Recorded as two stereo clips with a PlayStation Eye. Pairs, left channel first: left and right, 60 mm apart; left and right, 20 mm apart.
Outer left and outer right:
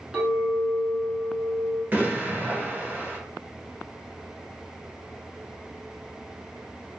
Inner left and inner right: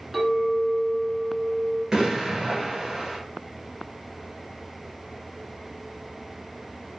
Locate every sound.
0.1 s a clink: 20° right (ahead or behind), 1.0 m
1.9 s an explosion: 35° right (ahead or behind), 1.1 m